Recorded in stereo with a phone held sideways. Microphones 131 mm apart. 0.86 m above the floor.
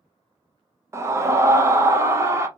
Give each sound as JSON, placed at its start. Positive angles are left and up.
{"t": 0.9, "sound": "a scream", "side_deg": -20, "distance_m": 0.5}